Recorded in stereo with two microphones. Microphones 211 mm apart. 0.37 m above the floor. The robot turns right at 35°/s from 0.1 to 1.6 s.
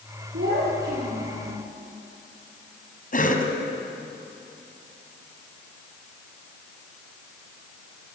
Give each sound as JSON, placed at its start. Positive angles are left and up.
{"t": 0.3, "sound": "a child speaking", "azimuth_deg": -75, "distance_m": 7.0}
{"t": 3.1, "sound": "a cough", "side_deg": 45, "distance_m": 3.0}